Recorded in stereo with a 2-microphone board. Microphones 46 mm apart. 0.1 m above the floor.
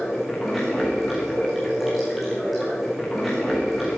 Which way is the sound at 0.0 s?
5° right (ahead or behind).